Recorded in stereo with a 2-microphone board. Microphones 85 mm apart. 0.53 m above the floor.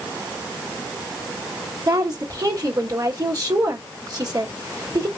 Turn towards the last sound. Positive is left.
turn(degrees=-45)  # may be behind; listen again after turning